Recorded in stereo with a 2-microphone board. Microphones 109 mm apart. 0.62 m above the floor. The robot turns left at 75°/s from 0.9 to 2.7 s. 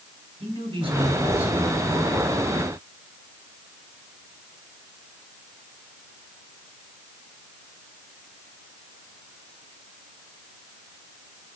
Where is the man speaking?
125° right, 4 m; by 2.4 s 120° left, 4 m.